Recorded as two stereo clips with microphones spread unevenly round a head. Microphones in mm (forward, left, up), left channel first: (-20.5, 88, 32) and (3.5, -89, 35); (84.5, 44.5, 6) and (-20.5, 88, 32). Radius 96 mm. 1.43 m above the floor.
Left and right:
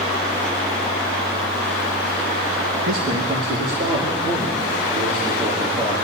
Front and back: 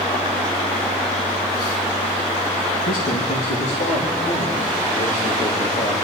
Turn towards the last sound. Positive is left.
turn(degrees=-25)